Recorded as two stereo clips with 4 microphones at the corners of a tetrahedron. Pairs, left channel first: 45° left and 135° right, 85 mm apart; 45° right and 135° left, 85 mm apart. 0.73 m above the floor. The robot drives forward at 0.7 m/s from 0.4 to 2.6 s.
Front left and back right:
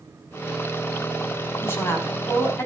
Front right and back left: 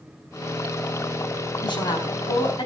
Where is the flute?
I don't hear a flute.